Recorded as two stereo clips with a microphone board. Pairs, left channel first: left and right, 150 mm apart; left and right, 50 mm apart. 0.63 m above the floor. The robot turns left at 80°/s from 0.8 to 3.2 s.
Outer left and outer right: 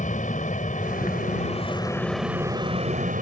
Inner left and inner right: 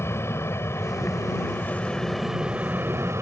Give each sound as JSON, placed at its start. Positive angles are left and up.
{"t": 0.0, "sound": "an aircraft", "azimuth_deg": 110}